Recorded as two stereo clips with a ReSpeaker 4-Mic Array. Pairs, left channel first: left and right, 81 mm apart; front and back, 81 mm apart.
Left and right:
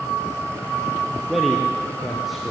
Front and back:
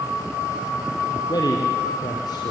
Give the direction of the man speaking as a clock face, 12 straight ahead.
12 o'clock.